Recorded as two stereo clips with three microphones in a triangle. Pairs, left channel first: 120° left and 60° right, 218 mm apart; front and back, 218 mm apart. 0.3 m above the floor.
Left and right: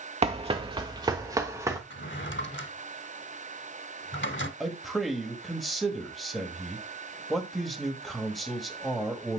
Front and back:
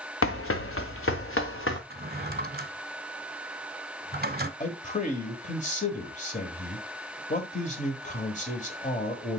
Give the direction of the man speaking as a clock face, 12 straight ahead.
11 o'clock.